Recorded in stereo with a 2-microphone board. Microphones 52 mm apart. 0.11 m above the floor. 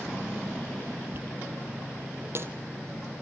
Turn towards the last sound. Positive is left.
turn(degrees=-50)  # may be behind; listen again after turning